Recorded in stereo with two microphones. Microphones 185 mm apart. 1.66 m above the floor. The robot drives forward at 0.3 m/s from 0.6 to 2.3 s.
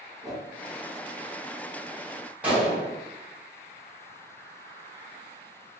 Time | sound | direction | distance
0.2 | a whoosh | 10° left (ahead or behind) | 1.0 m
2.4 | a gunshot | 5° right (ahead or behind) | 1.4 m